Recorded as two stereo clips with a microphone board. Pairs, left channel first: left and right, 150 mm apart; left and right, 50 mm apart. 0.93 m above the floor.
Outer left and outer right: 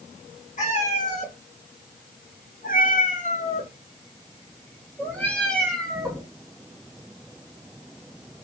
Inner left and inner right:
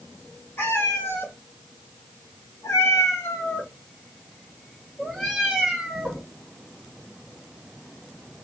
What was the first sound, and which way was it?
A cat meowing, 55° left (ahead or behind).